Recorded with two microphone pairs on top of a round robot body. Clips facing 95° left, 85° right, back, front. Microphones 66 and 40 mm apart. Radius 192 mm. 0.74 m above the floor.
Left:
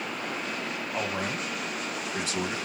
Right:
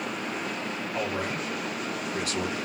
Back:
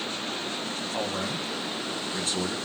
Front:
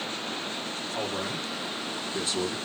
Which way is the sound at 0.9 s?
155° left.